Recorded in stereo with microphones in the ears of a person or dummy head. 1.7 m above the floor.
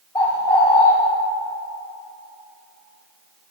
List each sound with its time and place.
0.1 s a bird: 15° left (ahead or behind), 1.7 m